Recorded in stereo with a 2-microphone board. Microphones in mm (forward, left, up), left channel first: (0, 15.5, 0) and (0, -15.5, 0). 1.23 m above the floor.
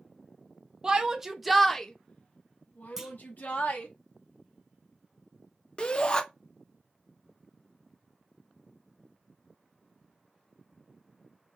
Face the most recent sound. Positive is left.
turn(degrees=25)  # may be behind; listen again after turning